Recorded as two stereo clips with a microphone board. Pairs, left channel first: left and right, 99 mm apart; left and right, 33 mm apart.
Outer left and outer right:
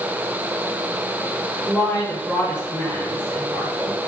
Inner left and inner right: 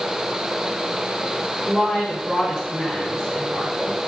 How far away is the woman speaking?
About 8.5 m.